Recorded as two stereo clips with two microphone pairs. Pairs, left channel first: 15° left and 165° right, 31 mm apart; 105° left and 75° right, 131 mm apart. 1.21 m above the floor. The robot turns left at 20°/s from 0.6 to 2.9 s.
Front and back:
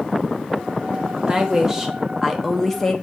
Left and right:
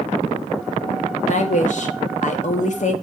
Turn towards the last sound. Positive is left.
turn(degrees=90)